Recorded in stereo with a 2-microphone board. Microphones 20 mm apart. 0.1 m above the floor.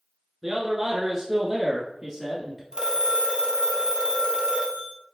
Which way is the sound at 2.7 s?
40° right (ahead or behind).